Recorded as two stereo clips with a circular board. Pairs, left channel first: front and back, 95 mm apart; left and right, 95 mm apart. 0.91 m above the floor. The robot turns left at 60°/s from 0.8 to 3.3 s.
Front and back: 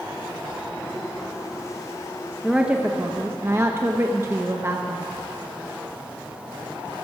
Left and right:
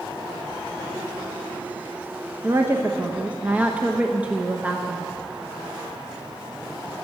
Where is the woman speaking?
95° right, 0.8 m; by 5.1 s 150° right, 0.8 m.